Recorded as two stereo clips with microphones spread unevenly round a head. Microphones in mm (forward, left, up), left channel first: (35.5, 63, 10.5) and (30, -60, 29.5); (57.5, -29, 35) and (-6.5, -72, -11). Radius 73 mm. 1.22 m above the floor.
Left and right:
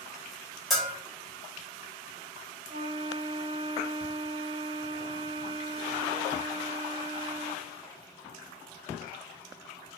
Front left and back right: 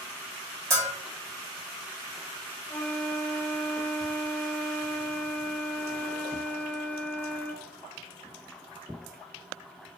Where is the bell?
175° left, 1.0 m.